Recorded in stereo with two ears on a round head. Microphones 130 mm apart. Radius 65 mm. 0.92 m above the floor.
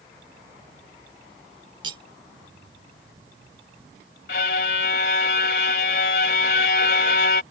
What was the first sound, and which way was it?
Cutlery clinking, 35° right (ahead or behind).